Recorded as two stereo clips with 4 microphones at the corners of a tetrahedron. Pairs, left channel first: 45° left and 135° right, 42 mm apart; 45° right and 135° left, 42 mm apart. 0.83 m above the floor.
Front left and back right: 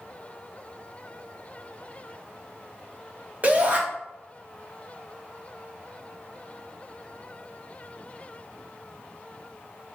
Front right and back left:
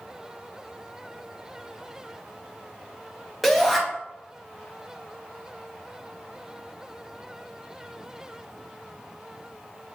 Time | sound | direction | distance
3.4 | a shout | 135° right | 1.3 m